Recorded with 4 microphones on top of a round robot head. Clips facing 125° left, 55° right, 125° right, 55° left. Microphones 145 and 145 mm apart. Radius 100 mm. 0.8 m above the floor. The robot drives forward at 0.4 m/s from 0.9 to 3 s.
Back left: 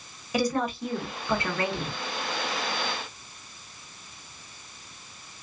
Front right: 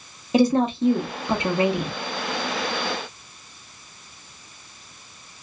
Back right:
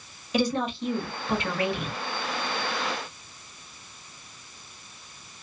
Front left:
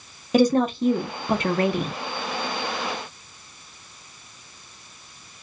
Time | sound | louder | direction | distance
0.3 | a woman speaking | front right 8 dB, front left 8 dB | 10° left | 0.8 m